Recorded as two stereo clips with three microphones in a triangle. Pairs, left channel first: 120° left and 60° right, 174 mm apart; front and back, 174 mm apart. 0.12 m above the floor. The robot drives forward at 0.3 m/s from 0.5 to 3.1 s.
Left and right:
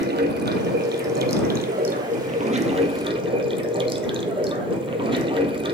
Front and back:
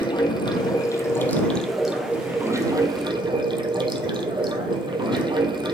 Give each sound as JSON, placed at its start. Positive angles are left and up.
{"t": 0.0, "sound": "running water", "azimuth_deg": -60, "distance_m": 0.8}